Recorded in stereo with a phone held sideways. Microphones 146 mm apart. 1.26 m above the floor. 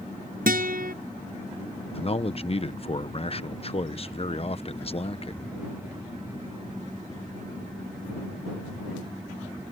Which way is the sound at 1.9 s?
40° left (ahead or behind).